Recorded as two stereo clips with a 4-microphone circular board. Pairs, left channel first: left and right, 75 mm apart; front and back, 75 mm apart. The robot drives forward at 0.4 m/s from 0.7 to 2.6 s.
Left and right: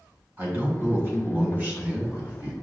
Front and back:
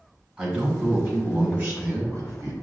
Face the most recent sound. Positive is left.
turn(degrees=-145)